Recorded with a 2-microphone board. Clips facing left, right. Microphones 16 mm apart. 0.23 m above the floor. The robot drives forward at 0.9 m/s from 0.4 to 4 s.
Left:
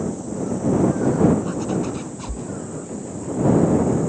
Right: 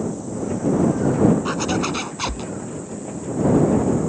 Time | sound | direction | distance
1.4 | a zipper | 55° right (ahead or behind) | ?